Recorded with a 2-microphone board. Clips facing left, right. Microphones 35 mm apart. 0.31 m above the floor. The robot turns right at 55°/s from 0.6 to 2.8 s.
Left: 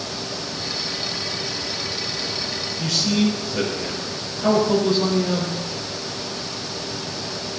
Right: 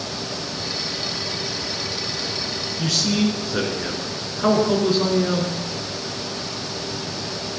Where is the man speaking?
75° right (ahead or behind), 3.5 m.